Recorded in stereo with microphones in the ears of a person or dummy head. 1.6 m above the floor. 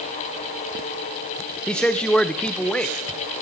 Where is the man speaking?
5° left (ahead or behind), 0.6 m.